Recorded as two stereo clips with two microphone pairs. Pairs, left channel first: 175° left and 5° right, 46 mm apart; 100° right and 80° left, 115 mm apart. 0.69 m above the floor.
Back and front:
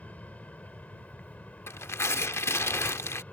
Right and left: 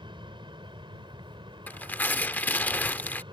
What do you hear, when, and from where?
0.0 s an aircraft: 120° left
1.7 s tearing paper: 175° right